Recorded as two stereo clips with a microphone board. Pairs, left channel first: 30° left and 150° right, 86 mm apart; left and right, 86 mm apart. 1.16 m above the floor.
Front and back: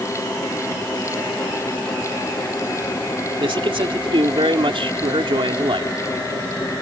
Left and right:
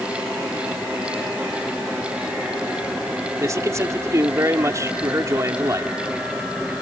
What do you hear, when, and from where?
3.4 s a man speaking: 145° right